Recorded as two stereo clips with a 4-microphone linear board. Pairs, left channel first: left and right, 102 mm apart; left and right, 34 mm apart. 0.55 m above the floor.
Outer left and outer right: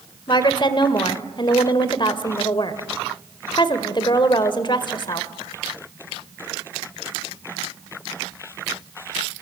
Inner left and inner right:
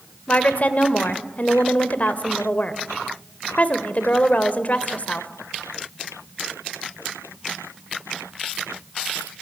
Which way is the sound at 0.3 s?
45° left (ahead or behind).